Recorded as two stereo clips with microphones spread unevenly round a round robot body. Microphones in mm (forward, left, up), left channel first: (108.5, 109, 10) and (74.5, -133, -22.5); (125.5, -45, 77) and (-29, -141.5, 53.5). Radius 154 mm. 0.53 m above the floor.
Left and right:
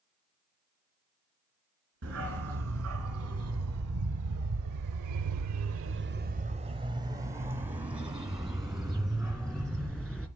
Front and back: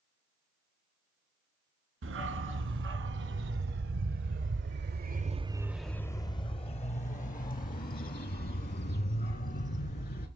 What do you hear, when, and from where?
2.0 s a dog barking: 155° right, 1.8 m; by 10.3 s 5° right, 2.5 m